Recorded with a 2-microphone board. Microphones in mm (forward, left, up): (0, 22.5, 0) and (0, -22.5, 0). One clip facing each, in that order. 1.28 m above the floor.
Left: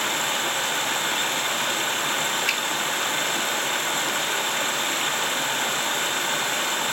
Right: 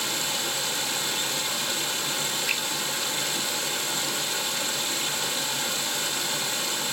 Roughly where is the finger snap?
Left.